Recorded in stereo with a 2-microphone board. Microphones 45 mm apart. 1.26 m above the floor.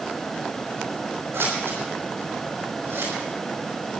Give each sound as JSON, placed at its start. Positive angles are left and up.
{"t": 1.3, "sound": "scissors", "side_deg": -85, "distance_m": 5.5}